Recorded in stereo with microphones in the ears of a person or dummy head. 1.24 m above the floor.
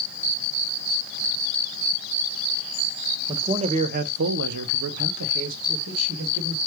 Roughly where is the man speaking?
Right.